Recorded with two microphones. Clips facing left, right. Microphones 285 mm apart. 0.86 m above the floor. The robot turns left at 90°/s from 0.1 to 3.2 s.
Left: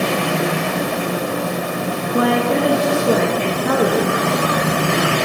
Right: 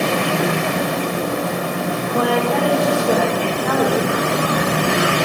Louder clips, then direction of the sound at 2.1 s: Left 2 dB; 145° left.